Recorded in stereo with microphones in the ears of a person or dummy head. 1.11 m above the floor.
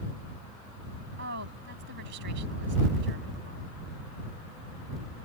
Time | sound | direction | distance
1.2 | a woman speaking | 65° right (ahead or behind) | ?